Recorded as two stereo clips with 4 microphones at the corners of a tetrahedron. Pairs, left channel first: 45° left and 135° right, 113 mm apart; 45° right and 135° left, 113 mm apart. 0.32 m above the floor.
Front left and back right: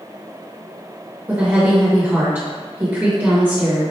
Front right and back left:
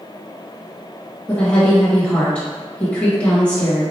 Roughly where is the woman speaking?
Right.